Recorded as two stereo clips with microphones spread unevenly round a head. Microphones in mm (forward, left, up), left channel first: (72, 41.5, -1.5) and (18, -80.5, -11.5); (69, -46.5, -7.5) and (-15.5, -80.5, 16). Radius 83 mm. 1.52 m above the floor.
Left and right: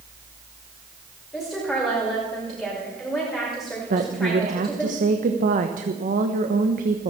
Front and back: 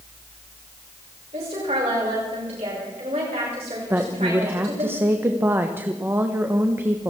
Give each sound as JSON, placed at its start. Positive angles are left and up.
{"t": 1.3, "sound": "a woman speaking", "azimuth_deg": 155, "distance_m": 6.0}
{"t": 3.9, "sound": "a woman speaking", "azimuth_deg": -95, "distance_m": 1.2}